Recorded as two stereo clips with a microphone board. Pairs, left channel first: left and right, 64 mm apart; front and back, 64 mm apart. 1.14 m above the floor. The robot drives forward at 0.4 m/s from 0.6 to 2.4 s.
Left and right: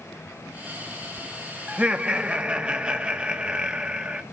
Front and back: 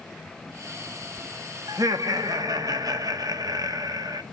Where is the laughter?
160° right, 1.7 m.